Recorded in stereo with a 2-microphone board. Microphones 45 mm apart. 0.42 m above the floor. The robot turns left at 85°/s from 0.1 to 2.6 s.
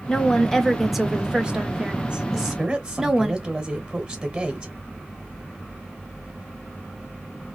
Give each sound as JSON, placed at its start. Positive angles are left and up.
{"t": 0.1, "sound": "a woman speaking", "side_deg": 20, "distance_m": 0.8}
{"t": 2.3, "sound": "a woman speaking", "side_deg": -5, "distance_m": 1.5}